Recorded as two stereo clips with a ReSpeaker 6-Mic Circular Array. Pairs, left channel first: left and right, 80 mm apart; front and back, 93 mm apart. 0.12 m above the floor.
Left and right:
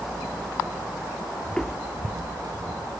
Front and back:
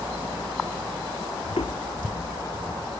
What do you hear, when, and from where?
1.4 s footsteps: 25° left, 0.5 m; by 3.0 s 65° right, 1.5 m